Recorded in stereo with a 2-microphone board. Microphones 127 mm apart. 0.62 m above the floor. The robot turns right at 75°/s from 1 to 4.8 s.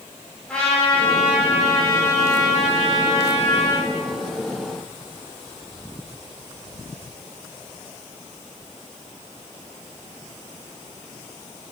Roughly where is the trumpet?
Behind.